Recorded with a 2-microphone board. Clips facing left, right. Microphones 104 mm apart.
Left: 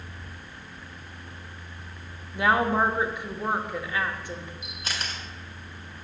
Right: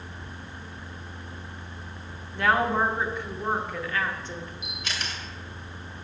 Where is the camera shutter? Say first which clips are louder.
Even; 40° left (ahead or behind), 2 m.